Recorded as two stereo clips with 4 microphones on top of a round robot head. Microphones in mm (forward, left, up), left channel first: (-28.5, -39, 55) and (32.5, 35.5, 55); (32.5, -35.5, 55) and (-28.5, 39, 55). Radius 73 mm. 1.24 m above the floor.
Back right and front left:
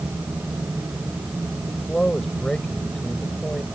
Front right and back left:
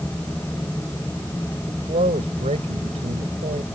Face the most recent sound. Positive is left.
turn(degrees=145)